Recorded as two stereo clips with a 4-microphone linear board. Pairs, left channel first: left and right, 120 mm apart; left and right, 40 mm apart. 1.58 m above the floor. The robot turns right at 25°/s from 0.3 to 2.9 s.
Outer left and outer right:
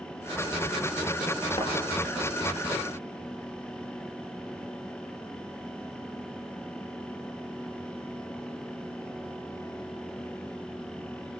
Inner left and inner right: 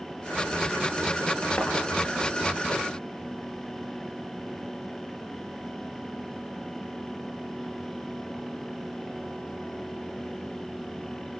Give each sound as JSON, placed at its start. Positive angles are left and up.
{"t": 1.6, "sound": "a thud", "side_deg": 55, "distance_m": 6.5}